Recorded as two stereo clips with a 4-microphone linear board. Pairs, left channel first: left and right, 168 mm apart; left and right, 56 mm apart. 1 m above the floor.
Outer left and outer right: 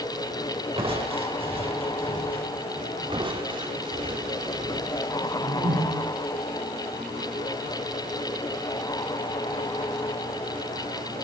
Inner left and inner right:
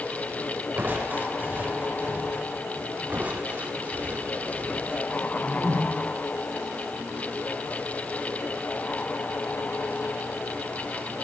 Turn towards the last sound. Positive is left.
turn(degrees=-70)  # may be behind; listen again after turning